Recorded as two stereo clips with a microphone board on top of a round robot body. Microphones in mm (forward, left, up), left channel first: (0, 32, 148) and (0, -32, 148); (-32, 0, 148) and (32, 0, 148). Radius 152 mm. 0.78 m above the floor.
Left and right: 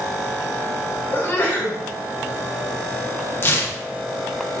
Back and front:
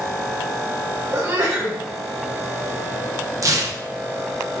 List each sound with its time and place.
1.1 s a sneeze: 30° left, 4 m
3.4 s tearing paper: 35° left, 1.0 m